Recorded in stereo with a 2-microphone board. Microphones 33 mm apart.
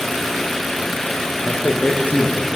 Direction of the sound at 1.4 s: 50° left (ahead or behind).